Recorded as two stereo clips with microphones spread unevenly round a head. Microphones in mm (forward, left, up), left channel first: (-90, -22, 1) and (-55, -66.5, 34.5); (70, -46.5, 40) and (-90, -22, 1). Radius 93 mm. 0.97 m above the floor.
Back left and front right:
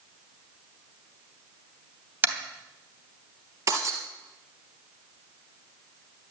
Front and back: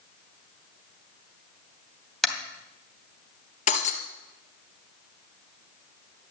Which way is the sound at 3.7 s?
45° right.